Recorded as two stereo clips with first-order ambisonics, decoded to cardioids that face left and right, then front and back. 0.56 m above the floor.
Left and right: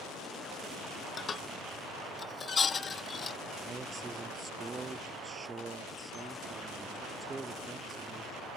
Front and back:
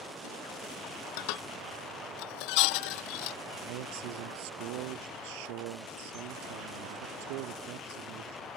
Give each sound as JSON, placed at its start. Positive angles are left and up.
{"t": 1.2, "sound": "dishes clattering", "azimuth_deg": 20}
{"t": 3.5, "sound": "a man speaking", "azimuth_deg": -170}